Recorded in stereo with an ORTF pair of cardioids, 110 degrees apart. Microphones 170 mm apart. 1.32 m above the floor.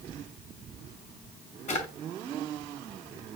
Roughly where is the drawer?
Ahead left.